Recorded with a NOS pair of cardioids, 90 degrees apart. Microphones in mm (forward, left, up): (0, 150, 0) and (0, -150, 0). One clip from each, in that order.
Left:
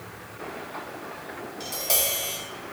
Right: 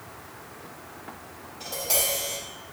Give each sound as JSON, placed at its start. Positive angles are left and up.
{"t": 1.6, "sound": "tapping", "azimuth_deg": 25, "distance_m": 1.9}